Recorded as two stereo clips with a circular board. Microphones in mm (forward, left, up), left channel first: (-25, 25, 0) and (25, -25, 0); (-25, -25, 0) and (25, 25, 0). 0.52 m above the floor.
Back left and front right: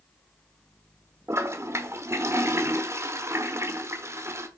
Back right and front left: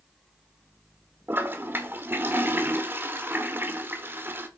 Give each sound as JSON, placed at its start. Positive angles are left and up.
{"t": 1.3, "sound": "a toilet flushing", "azimuth_deg": -5, "distance_m": 1.1}